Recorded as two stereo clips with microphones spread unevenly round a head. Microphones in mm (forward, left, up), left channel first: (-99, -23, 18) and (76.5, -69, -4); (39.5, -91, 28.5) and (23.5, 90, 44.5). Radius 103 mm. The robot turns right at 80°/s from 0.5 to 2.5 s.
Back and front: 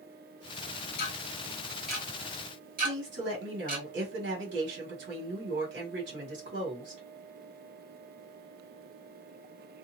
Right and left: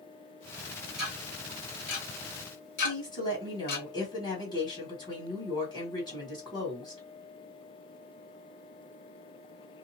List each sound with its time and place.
1.0 s ticking: straight behind, 1.4 m; by 3.8 s 60° right, 1.4 m
2.8 s a woman speaking: 20° right, 1.3 m